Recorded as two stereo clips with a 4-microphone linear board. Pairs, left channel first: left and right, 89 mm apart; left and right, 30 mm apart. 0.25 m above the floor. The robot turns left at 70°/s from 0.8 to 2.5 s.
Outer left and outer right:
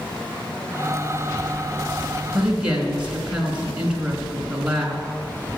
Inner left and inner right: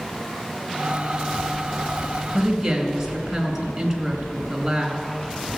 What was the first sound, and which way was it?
A woman speaking, centre (ahead or behind).